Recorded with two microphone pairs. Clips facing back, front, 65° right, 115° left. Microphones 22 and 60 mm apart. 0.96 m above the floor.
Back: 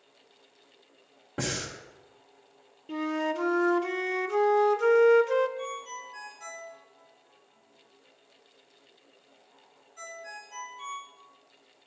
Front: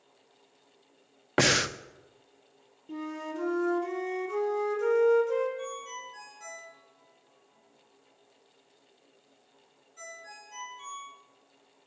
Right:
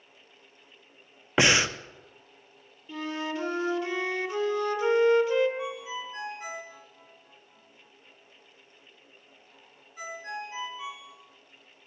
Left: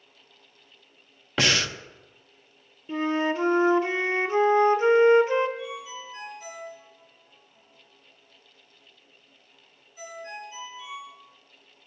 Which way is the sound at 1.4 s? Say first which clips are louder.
Front 9 dB, right 2 dB; 10° left.